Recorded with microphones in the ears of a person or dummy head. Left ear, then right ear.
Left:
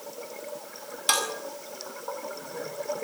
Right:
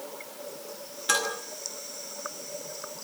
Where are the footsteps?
I don't hear footsteps.